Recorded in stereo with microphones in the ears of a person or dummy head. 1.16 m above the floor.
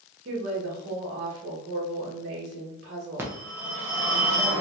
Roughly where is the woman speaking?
Right.